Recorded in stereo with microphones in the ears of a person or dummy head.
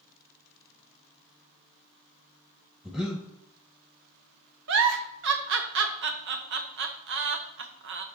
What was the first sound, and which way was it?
Breathing, centre (ahead or behind).